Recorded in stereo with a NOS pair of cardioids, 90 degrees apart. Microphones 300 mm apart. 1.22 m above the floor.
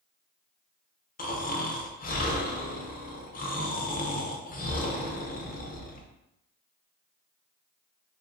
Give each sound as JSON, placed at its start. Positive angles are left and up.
{"t": 1.2, "sound": "snoring", "azimuth_deg": 30, "distance_m": 0.6}